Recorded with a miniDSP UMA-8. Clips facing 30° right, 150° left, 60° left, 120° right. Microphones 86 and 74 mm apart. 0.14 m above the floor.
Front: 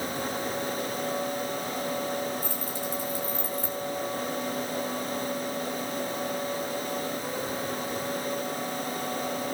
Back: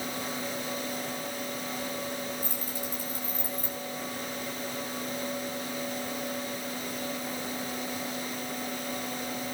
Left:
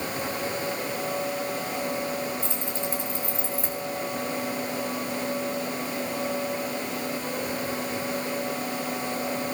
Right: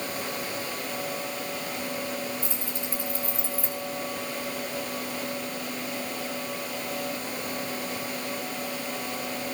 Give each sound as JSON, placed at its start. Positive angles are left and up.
{"t": 2.4, "sound": "keys jangling", "azimuth_deg": -5, "distance_m": 9.5}